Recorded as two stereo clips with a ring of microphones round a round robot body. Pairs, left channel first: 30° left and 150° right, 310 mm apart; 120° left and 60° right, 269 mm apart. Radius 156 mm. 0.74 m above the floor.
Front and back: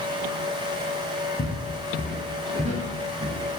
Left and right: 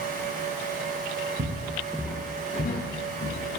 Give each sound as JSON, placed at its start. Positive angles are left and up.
{"t": 1.4, "sound": "footsteps", "azimuth_deg": -30, "distance_m": 0.9}